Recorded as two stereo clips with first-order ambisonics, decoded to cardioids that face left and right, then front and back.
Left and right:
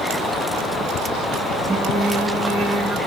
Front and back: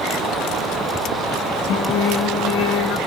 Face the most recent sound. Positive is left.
turn(degrees=-15)